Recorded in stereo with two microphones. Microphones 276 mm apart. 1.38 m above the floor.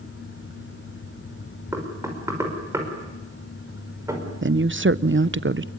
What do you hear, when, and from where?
1.7 s knocking: 10° right (ahead or behind), 5 m
4.4 s a woman speaking: 45° right (ahead or behind), 0.7 m